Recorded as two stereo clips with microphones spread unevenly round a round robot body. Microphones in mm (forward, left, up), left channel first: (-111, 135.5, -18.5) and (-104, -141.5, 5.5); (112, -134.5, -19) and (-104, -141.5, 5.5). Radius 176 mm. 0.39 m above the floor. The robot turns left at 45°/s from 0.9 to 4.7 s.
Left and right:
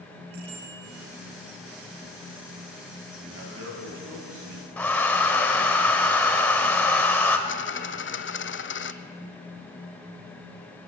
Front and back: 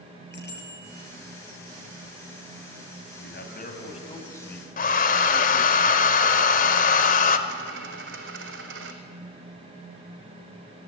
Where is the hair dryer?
10° left, 1.0 m.